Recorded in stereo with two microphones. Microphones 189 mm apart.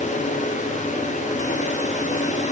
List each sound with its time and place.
Only background noise.